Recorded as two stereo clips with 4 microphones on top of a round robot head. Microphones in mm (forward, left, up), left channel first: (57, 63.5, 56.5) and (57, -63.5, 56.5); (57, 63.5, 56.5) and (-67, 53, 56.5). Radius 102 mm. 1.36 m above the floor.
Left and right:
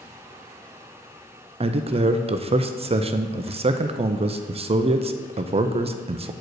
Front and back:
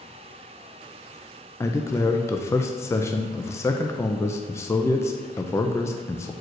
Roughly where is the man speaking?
Ahead right.